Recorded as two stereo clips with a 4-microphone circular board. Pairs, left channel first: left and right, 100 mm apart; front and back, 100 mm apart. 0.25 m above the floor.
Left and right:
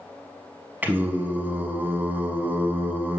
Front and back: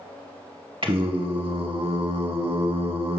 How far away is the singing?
About 0.5 m.